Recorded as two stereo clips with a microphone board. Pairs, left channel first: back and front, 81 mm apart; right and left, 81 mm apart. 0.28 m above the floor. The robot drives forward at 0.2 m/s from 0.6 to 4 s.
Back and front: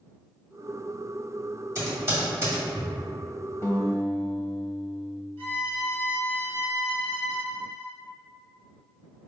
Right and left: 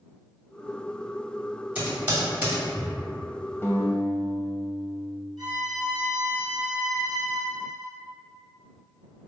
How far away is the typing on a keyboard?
About 1.9 m.